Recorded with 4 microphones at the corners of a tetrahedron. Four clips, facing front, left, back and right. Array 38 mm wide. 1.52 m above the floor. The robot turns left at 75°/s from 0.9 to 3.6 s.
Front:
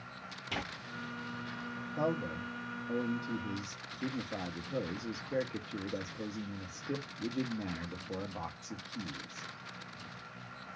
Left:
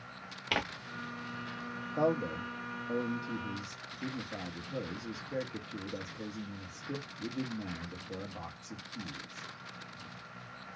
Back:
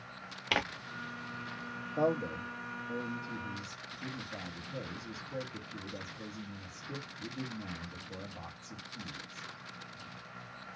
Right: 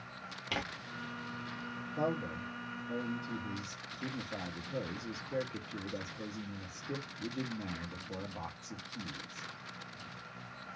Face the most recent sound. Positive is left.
turn(degrees=5)